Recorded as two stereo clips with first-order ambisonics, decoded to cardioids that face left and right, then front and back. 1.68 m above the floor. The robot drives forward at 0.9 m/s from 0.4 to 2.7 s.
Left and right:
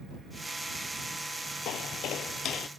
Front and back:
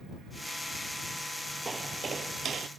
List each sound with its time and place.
1.6 s footsteps: 110° left; by 2.7 s 135° left